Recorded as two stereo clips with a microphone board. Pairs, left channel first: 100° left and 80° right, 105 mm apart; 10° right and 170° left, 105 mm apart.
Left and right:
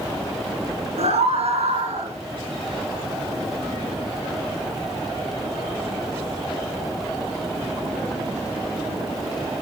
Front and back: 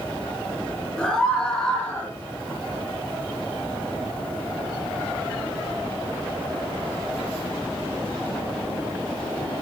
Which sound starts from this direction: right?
A scream, at 1.0 s.